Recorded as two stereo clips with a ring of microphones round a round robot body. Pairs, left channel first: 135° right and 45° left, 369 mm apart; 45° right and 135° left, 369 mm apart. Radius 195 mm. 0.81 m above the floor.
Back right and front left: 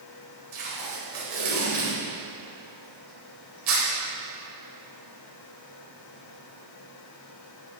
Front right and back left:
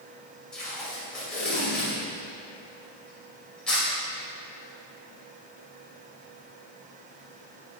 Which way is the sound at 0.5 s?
45° left.